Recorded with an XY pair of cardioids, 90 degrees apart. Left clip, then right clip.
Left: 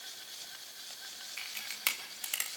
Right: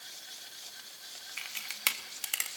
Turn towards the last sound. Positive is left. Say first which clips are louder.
# right 3 dB
turn(degrees=-25)